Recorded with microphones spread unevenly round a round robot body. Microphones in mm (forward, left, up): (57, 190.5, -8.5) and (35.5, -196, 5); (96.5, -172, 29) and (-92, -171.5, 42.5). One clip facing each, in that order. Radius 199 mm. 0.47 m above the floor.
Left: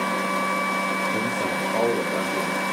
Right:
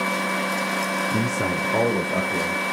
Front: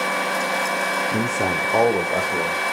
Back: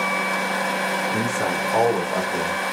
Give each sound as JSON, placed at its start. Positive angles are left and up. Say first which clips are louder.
{"t": 1.1, "sound": "a man speaking", "louder": "right 4 dB, front 3 dB", "azimuth_deg": -50, "distance_m": 1.0}